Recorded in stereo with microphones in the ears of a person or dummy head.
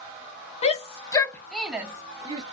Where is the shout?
35° left (ahead or behind), 0.8 m; by 2.4 s 25° right (ahead or behind), 0.9 m.